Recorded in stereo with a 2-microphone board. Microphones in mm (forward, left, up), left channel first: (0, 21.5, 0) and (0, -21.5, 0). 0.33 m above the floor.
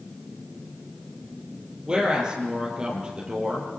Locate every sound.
1.9 s a woman speaking: 20° right (ahead or behind), 7 m